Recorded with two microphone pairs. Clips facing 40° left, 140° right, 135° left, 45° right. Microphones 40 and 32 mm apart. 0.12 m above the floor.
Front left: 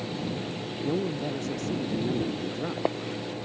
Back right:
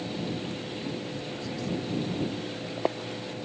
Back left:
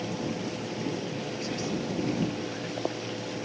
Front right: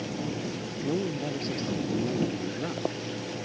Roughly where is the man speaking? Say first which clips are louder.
Front left 6 dB, front right 7 dB; ahead.